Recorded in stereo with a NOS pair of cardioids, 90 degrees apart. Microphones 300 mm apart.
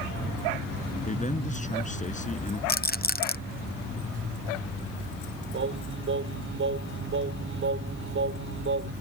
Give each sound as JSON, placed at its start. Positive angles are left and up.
{"t": 1.1, "sound": "a man speaking", "azimuth_deg": 25}
{"t": 2.7, "sound": "a rattle", "azimuth_deg": 30}
{"t": 5.5, "sound": "singing", "azimuth_deg": -40}